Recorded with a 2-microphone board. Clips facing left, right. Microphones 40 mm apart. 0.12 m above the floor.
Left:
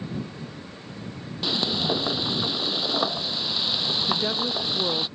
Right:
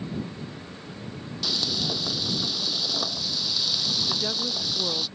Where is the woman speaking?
20° left (ahead or behind).